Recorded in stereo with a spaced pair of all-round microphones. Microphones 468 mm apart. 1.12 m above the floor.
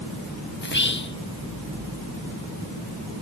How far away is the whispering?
About 0.6 m.